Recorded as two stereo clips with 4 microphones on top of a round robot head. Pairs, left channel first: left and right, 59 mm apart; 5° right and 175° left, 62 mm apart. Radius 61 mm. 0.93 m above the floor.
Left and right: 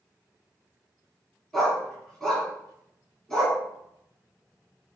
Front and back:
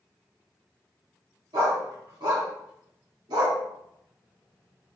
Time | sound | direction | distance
1.5 | a dog barking | 175° left | 3.5 m